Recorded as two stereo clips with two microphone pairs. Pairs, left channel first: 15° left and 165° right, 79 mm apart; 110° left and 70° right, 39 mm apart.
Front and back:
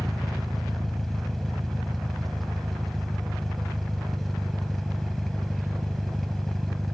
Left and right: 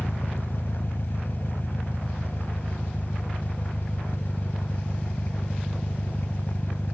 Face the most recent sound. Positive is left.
turn(degrees=100)